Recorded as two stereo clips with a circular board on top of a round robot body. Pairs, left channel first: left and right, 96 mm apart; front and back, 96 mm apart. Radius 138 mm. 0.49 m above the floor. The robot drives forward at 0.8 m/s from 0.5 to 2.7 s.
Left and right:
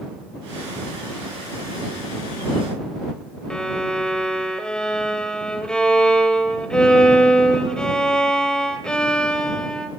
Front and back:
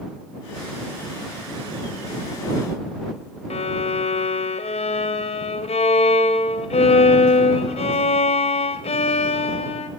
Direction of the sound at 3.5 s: 5° left.